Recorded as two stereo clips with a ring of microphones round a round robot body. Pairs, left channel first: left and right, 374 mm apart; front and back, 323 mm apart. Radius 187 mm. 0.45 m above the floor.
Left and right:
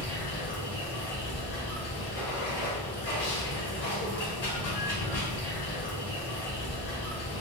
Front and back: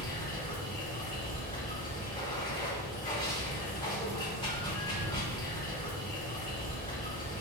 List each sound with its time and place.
0.0 s running water: 75° left, 1.7 m